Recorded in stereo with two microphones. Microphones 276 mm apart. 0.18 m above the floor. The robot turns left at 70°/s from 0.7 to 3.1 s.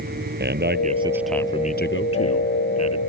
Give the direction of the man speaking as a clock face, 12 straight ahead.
5 o'clock.